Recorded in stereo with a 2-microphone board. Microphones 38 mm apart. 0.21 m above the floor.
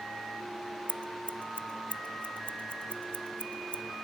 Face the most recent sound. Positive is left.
turn(degrees=35)  # may be behind; listen again after turning